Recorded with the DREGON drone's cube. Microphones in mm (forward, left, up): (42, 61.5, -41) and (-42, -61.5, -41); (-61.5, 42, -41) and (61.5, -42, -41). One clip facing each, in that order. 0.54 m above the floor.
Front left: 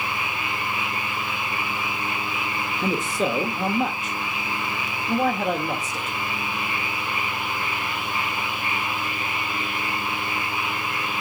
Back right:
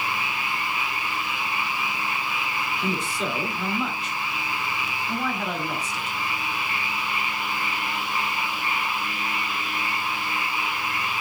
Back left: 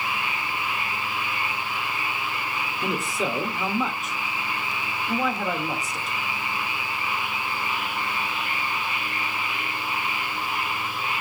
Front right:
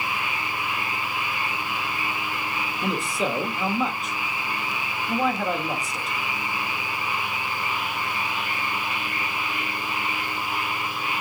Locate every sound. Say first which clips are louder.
2.8 s a man speaking: front left 6 dB, front right 1 dB; 60° left, 1.0 m